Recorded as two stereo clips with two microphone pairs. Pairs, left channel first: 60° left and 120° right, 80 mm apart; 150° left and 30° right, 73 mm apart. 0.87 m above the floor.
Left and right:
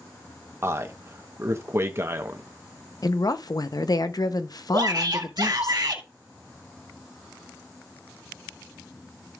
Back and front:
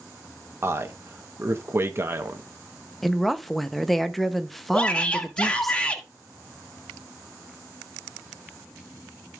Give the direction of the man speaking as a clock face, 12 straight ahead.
3 o'clock.